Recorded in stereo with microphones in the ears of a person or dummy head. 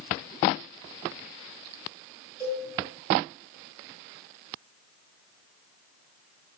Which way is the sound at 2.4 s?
20° right (ahead or behind).